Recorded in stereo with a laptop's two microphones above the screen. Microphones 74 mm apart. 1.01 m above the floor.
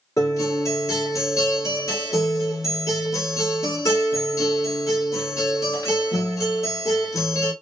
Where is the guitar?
40° left (ahead or behind), 1.1 m.